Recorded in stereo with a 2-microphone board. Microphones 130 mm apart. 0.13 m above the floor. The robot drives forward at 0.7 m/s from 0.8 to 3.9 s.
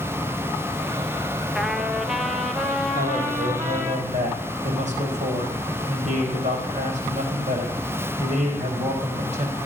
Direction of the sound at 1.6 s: Centre (ahead or behind).